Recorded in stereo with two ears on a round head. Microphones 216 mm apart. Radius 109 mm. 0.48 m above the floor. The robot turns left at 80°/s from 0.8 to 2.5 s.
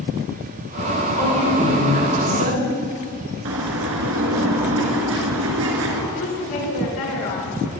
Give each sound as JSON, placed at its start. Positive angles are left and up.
{"t": 1.2, "sound": "a woman speaking", "azimuth_deg": 25, "distance_m": 5.5}
{"t": 3.5, "sound": "a bird", "side_deg": -60, "distance_m": 1.5}
{"t": 6.1, "sound": "a woman speaking", "side_deg": 70, "distance_m": 5.0}